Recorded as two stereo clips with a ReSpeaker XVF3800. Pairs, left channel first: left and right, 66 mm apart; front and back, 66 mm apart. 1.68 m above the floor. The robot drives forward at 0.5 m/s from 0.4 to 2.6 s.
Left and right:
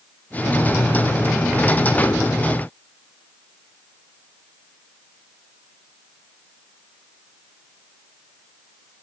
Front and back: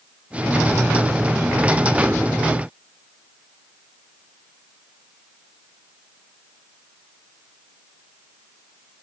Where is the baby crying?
I don't hear a baby crying.